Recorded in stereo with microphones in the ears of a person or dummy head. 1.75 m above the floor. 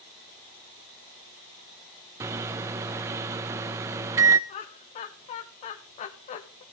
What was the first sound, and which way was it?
A microwave, 15° right (ahead or behind).